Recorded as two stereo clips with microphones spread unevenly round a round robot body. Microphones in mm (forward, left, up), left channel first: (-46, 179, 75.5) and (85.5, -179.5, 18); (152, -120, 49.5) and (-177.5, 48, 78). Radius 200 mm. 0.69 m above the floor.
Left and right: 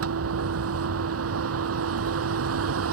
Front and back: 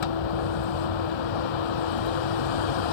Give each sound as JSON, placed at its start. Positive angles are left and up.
{"t": 0.0, "sound": "a vehicle", "azimuth_deg": -15}